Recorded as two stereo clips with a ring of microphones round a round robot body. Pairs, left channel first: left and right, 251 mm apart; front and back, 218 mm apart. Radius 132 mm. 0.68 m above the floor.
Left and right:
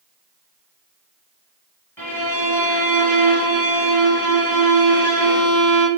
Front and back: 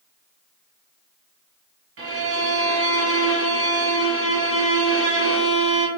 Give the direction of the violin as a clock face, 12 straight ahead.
6 o'clock.